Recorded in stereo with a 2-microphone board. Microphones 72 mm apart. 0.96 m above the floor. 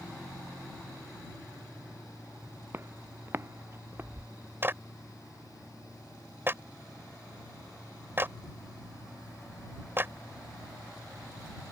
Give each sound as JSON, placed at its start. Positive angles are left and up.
{"t": 2.7, "sound": "footsteps", "side_deg": -35}
{"t": 4.6, "sound": "a clap", "side_deg": -30}